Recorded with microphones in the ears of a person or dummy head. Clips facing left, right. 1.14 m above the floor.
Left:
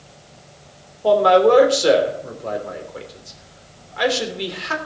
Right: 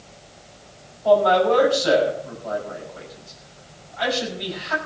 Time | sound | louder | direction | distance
1.0 | a man speaking | left 3 dB | 85° left | 3.5 m